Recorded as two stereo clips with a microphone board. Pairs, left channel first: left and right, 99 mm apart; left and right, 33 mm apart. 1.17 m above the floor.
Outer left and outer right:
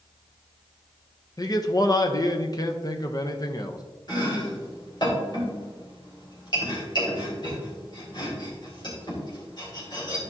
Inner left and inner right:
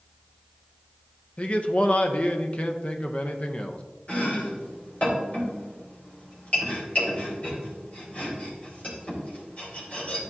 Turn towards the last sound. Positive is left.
turn(degrees=45)  # may be behind; listen again after turning